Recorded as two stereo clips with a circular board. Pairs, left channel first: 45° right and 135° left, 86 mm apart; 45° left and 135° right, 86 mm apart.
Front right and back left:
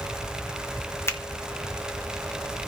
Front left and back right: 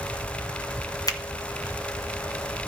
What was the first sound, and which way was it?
A finger snap, 10° left.